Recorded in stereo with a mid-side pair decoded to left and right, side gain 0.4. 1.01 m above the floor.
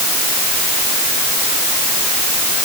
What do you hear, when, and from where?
Only background noise.